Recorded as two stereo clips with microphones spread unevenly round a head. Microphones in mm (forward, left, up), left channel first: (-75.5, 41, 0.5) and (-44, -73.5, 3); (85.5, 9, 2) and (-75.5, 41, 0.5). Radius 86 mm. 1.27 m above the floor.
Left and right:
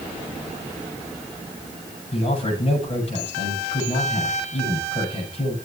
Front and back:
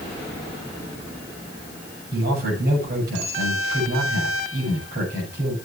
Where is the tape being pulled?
I don't hear tape being pulled.